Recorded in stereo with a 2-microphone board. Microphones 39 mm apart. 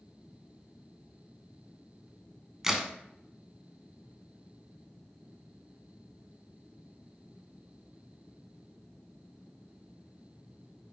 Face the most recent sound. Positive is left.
turn(degrees=-10)  # may be behind; listen again after turning